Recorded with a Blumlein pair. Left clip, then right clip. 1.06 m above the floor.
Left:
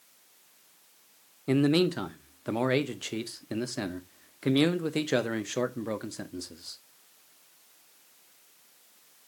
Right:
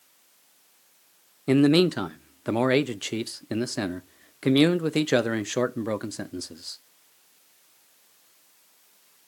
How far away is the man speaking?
About 0.6 m.